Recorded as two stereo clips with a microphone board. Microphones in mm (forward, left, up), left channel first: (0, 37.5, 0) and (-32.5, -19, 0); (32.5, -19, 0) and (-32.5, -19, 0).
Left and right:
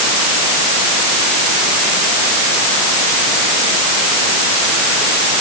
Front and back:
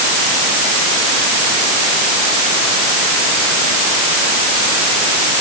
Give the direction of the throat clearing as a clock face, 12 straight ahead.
No throat clearing in this recording.